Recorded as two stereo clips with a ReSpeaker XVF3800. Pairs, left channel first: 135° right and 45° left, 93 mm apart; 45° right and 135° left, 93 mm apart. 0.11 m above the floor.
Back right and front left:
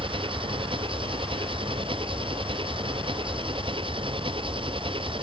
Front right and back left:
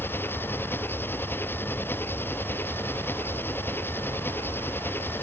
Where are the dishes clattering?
No dishes clattering in this recording.